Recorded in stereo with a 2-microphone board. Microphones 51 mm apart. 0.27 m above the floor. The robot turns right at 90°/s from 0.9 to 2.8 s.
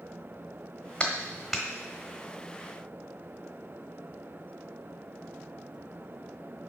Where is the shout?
No shout in this recording.